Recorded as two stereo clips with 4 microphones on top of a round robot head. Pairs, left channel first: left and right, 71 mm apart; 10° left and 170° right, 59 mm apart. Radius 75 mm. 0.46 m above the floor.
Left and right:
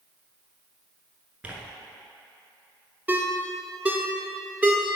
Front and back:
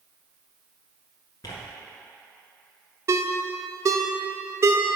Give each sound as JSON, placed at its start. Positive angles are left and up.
{"t": 1.4, "sound": "tearing paper", "azimuth_deg": -20, "distance_m": 1.5}
{"t": 3.1, "sound": "a ringtone", "azimuth_deg": -155, "distance_m": 1.0}